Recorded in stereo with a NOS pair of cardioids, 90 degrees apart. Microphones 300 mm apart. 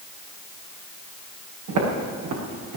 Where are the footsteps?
70° right, 6 m; by 2.8 s 75° right, 6 m.